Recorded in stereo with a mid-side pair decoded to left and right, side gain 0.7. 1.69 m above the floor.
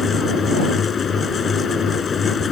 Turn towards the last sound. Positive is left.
turn(degrees=30)